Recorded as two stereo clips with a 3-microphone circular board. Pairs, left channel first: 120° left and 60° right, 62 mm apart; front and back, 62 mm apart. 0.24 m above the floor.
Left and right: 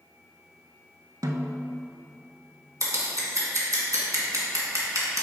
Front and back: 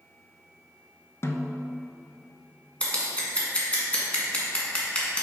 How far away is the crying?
I don't hear crying.